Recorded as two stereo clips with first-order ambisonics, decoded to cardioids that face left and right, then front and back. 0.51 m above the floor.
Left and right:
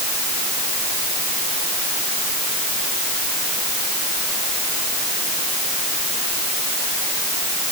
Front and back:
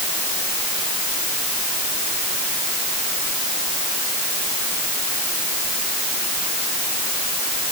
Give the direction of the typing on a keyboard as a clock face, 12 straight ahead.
I don't hear typing on a keyboard.